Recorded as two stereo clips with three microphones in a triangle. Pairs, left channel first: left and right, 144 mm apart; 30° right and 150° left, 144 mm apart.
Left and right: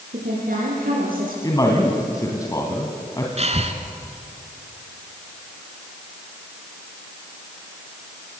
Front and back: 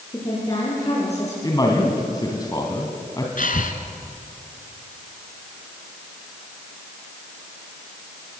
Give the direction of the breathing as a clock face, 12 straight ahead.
2 o'clock.